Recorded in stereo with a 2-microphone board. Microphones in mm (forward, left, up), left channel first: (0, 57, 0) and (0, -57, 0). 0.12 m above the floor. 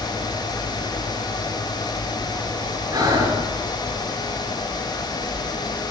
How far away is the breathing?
About 8.5 m.